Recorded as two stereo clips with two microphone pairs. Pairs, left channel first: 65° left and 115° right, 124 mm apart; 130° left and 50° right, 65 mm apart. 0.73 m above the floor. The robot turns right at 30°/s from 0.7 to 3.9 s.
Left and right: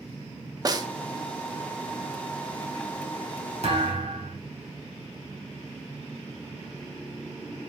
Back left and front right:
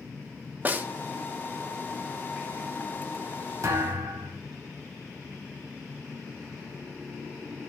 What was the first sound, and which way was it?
A snare drum, 90° right.